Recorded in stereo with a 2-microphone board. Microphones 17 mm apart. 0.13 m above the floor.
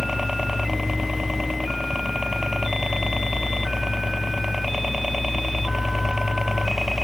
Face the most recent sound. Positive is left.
turn(degrees=-25)  # may be behind; listen again after turning